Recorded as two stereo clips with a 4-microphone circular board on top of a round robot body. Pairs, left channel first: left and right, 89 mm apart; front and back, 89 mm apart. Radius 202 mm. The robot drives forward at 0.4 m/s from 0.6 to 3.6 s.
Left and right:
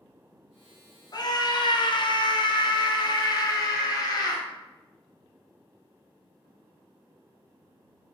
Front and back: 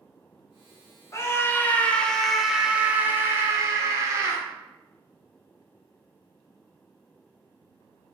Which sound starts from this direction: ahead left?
A scream, at 1.1 s.